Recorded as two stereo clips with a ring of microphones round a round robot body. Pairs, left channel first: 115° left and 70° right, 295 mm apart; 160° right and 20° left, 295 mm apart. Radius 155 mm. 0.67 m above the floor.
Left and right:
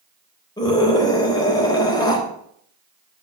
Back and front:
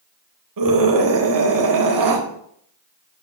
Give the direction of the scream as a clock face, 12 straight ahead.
11 o'clock.